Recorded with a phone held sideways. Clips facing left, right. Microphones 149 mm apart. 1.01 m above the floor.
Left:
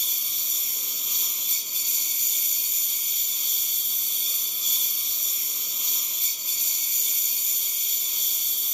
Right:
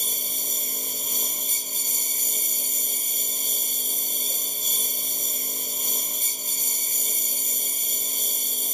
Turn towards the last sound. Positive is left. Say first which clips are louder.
# right 10 dB
turn(degrees=-50)  # may be behind; listen again after turning